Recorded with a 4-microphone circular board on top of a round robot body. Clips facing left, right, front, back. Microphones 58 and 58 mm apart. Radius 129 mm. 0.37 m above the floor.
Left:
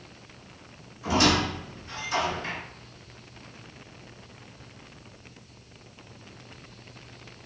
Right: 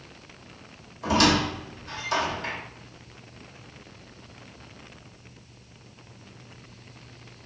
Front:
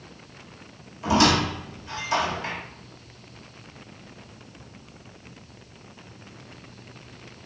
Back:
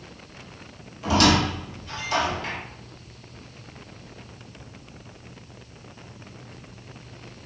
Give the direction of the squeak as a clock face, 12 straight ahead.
2 o'clock.